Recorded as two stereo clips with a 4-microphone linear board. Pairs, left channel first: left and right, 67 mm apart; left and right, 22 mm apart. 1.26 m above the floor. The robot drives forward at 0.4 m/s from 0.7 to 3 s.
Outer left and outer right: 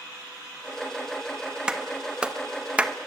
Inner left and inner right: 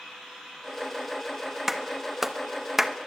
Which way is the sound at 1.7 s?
15° right (ahead or behind).